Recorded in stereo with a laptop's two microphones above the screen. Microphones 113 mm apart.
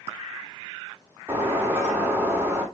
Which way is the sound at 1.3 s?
20° right (ahead or behind).